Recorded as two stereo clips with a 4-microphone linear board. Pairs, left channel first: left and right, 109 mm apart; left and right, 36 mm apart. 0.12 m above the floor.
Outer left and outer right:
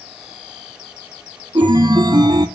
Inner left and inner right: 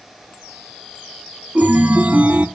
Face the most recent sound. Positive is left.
turn(degrees=-40)  # may be behind; listen again after turning